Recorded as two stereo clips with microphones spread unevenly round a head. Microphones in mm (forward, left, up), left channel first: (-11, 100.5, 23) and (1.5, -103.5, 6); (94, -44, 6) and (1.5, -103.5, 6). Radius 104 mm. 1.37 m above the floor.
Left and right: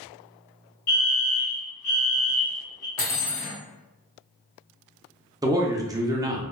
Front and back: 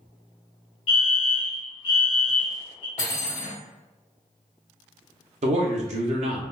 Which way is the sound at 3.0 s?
75° left.